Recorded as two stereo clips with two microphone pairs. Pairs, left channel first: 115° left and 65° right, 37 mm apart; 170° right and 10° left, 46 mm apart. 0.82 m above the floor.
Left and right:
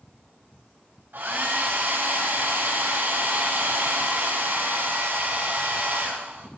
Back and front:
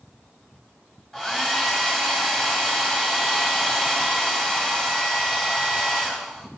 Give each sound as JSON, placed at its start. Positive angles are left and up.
{"t": 1.1, "sound": "a hair dryer", "azimuth_deg": -90, "distance_m": 1.9}